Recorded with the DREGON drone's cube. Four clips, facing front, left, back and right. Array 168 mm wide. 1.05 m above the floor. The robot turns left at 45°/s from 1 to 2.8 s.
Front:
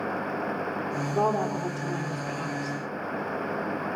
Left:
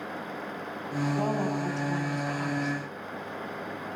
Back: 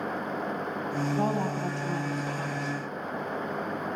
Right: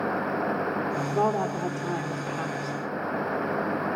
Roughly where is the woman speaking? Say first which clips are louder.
Right 4 dB, front 5 dB; ahead right.